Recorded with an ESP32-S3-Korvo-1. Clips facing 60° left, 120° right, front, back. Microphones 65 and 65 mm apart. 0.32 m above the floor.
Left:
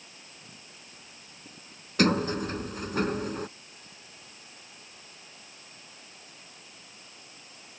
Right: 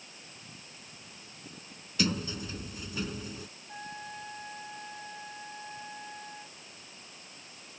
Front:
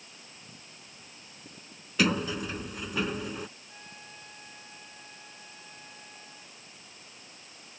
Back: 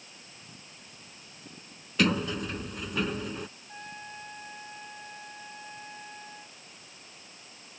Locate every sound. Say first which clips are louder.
2.0 s a sliding door: left 8 dB, even; 85° left
3.7 s a trumpet: right 11 dB, back 6 dB; 130° right